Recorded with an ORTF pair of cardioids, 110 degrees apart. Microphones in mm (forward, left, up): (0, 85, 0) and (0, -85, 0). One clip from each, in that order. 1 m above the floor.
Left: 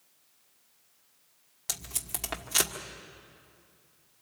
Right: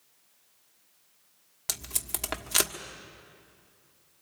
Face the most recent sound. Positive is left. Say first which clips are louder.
# right 2 dB
turn(degrees=-15)